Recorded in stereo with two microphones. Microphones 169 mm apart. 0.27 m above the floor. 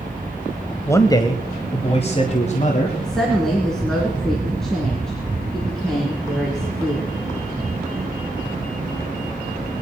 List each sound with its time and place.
0.9 s a man speaking: 15° left (ahead or behind), 1.0 m; by 2.9 s 45° left (ahead or behind), 1.9 m
3.0 s a woman speaking: 5° left (ahead or behind), 3 m